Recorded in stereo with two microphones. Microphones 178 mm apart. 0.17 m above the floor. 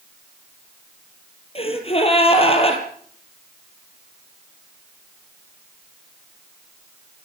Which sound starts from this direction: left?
A gasp, at 1.6 s.